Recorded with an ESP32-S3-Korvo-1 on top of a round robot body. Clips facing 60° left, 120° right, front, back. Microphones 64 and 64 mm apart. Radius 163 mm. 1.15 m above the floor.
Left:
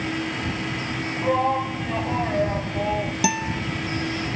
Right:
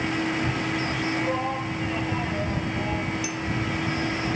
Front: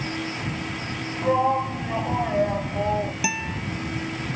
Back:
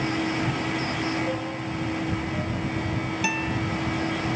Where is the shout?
5° right.